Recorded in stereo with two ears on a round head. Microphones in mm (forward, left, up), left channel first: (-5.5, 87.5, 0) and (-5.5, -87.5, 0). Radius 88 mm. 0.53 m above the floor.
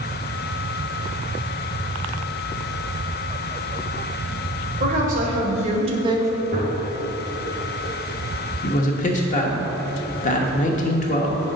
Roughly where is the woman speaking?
Right.